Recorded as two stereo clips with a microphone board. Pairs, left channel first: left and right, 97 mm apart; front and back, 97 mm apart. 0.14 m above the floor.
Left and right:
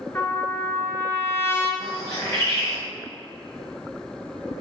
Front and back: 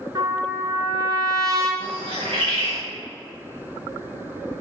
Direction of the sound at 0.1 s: 145° left.